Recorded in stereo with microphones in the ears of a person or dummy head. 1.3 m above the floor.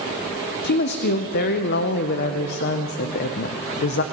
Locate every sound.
0.6 s a woman speaking: 50° left (ahead or behind), 0.6 m